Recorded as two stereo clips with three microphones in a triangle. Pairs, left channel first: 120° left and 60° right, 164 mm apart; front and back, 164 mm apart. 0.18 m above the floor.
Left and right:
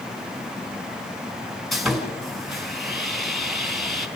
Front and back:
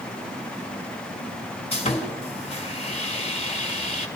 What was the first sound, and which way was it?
Sawing, 30° left.